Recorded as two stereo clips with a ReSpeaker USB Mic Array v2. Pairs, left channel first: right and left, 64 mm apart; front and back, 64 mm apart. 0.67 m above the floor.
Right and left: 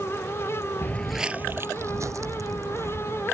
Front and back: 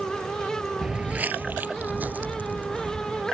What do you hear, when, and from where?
0.8 s footsteps: 100° right; by 3.2 s 115° left